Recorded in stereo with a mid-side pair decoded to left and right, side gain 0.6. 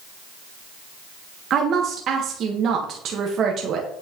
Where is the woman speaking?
50° right, 1.5 m.